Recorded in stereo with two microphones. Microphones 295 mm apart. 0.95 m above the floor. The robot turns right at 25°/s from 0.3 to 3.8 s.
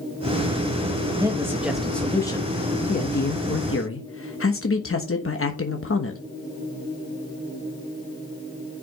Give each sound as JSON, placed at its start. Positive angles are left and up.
{"t": 1.2, "sound": "a man speaking", "azimuth_deg": -15, "distance_m": 1.1}